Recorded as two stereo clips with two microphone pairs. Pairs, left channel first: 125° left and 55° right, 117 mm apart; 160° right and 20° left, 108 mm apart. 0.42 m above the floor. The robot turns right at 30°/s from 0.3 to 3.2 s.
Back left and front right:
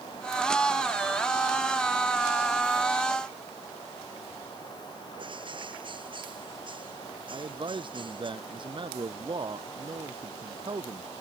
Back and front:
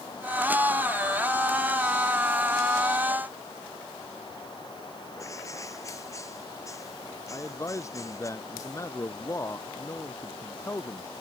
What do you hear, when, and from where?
5.2 s a bird: 100° right
7.3 s a man speaking: 100° right